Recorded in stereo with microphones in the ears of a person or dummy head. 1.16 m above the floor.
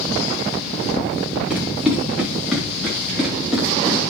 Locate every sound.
1.5 s running footsteps: 10° right (ahead or behind), 7.5 m; by 4.1 s 5° right (ahead or behind), 5.5 m